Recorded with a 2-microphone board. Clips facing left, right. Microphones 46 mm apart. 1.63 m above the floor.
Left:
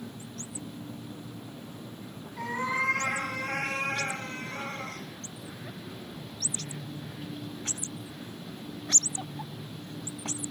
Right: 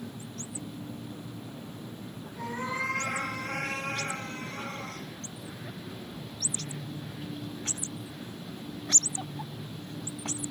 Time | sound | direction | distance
2.4 | a cat meowing | 75° left (ahead or behind) | 4.5 m